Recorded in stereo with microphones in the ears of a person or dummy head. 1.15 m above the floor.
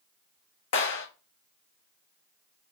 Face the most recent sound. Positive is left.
turn(degrees=65)  # may be behind; listen again after turning